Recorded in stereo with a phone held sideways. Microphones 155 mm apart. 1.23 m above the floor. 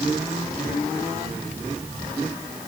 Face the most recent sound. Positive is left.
No sound to turn to.